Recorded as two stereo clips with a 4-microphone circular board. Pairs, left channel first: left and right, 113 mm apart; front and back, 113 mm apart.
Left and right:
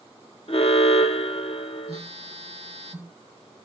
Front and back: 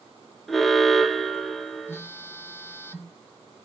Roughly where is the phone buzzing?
Right.